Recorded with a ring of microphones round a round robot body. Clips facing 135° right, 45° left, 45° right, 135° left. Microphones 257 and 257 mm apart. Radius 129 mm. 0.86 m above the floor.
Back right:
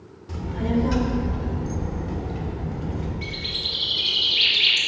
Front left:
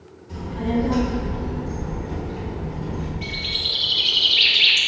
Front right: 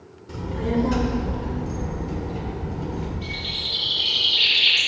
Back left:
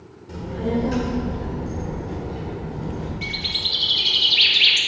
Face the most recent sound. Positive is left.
turn(degrees=140)